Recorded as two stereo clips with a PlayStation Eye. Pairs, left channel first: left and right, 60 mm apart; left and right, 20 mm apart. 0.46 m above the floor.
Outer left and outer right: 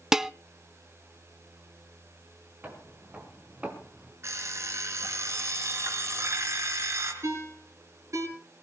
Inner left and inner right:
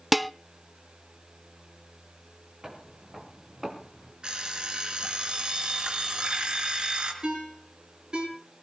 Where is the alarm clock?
50° right (ahead or behind), 3.5 m.